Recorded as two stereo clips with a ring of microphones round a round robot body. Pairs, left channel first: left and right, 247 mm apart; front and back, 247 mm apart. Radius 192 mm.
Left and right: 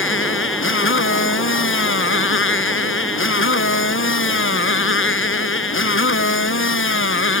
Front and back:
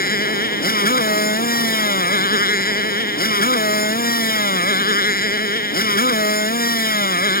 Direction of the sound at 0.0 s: 55° left.